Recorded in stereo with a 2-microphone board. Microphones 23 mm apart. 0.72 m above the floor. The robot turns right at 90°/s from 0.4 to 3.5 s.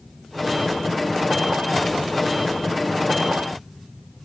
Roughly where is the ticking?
I don't hear ticking.